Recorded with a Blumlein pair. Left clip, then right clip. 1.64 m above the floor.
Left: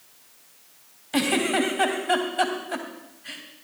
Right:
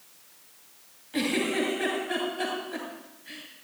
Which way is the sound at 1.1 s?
60° left.